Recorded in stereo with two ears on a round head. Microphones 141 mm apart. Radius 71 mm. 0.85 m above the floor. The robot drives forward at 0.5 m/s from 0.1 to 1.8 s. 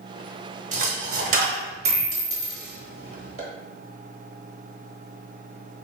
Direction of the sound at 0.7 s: 50° right (ahead or behind).